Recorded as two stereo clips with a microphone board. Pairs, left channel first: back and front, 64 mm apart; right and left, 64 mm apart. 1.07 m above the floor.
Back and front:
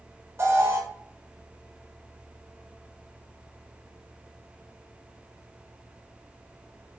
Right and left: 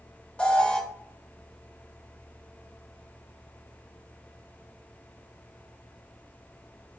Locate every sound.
0.4 s an alarm: 25° right, 0.8 m